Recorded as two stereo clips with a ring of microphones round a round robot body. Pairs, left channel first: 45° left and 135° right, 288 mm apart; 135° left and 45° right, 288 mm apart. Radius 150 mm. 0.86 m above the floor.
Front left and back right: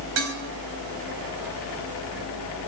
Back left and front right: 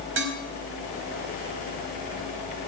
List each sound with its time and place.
0.2 s dishes clattering: 95° right, 4 m